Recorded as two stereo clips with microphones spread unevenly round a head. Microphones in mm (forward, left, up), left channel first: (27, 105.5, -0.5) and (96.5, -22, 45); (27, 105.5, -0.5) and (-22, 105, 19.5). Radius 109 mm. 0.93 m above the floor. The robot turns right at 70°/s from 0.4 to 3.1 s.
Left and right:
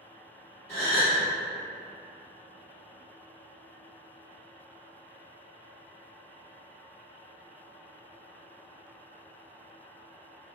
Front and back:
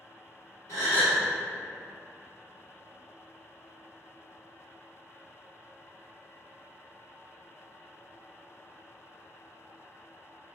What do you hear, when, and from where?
0.7 s a gasp: 125° right, 1.9 m; by 1.2 s 90° right, 1.9 m